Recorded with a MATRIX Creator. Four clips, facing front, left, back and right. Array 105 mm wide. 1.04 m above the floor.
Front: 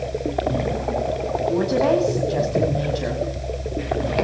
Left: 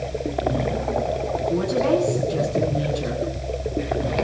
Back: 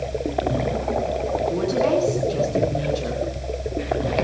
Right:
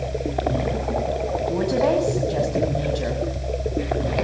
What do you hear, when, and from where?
1.5 s a woman speaking: 40° right, 8.5 m